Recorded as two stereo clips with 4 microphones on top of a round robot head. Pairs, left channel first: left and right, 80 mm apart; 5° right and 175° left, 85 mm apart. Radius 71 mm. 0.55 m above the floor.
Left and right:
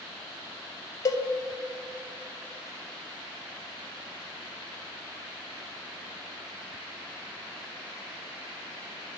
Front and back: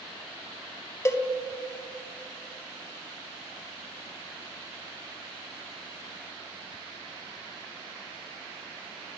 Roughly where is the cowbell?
Ahead left.